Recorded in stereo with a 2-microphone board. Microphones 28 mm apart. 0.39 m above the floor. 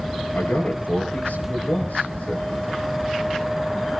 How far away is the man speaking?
About 9 m.